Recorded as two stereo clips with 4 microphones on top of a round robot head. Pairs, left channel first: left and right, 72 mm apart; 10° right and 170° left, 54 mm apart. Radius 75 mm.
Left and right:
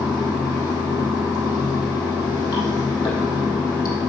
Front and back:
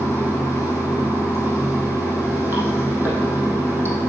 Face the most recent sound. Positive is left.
turn(degrees=120)